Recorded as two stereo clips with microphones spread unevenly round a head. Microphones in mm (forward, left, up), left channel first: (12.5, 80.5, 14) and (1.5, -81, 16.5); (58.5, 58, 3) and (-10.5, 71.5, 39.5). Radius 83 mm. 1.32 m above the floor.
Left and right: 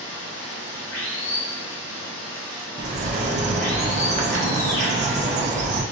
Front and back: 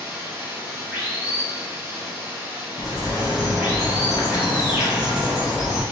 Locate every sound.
0.0 s running water: 100° left, 2 m
2.8 s a bird: 100° right, 0.7 m